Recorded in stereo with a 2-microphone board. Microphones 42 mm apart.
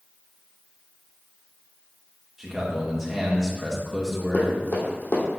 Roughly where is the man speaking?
Centre.